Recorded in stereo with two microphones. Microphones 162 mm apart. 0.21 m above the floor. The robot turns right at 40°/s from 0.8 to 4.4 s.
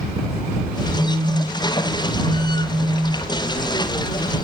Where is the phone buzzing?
100° right; by 3.3 s 5° right.